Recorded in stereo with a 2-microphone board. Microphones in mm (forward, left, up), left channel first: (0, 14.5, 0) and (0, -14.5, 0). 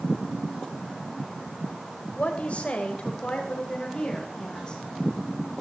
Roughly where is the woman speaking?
Left.